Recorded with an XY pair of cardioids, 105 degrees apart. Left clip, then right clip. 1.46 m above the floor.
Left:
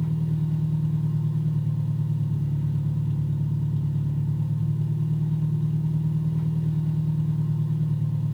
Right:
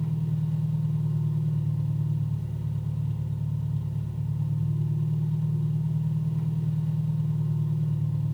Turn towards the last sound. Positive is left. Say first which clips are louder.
# left 3 dB
turn(degrees=15)